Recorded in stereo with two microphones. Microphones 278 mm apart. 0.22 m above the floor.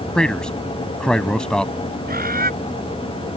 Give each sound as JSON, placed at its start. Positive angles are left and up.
{"t": 0.1, "sound": "a man speaking", "side_deg": 5}
{"t": 2.1, "sound": "a bird", "side_deg": -35}